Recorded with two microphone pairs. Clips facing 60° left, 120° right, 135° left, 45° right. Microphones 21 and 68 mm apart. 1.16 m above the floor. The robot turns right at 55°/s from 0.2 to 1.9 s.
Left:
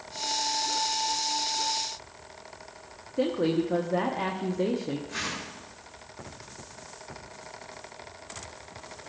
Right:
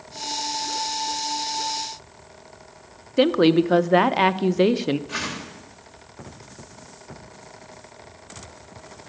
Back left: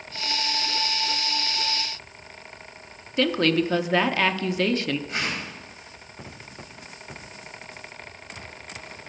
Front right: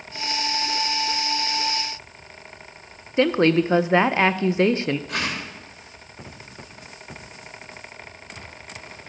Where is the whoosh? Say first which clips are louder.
Right 4 dB, front right 2 dB; 75° right, 2.5 m.